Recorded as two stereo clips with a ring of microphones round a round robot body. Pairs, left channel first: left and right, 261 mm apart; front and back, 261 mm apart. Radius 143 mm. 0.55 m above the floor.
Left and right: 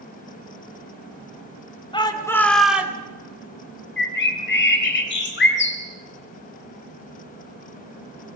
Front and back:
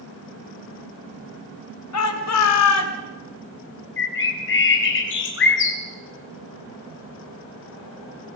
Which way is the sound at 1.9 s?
20° left.